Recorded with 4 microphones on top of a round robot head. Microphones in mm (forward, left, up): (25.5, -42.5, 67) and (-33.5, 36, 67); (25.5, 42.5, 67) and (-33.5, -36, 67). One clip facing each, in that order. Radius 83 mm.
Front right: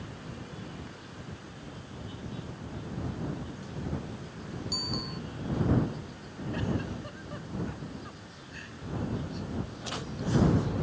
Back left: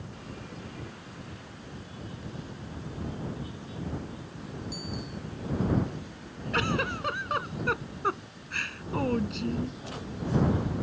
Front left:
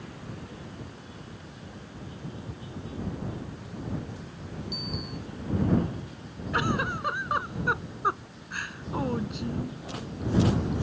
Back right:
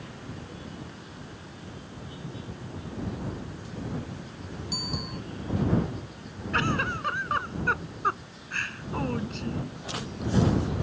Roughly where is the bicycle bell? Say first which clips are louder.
Front right 1 dB, back right 3 dB; right.